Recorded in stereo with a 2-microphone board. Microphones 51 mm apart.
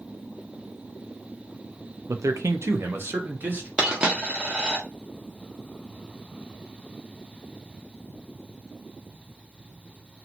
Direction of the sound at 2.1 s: 85° right.